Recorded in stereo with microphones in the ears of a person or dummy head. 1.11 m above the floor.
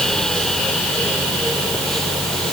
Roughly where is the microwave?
No microwave in this recording.